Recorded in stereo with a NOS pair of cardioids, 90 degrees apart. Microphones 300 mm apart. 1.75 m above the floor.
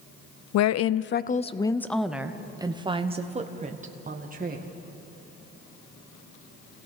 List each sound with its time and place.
0.5 s a woman speaking: 65° left, 0.6 m; by 4.7 s 30° right, 2 m